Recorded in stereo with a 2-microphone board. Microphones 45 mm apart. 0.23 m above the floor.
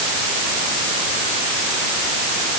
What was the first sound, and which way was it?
Only background noise.